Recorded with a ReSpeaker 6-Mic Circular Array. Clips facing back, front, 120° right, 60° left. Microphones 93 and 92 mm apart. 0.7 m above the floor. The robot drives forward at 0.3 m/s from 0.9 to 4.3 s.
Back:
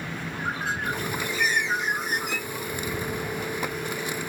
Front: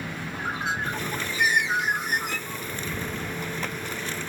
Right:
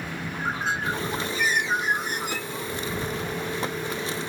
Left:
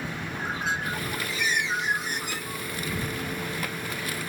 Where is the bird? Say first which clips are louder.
Front 1 dB, right 3 dB; 65° right, 1.0 m; by 2.7 s 100° right, 0.9 m.